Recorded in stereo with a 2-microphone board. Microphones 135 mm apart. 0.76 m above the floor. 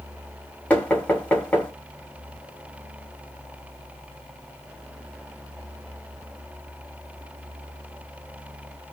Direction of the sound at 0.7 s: 15° left (ahead or behind).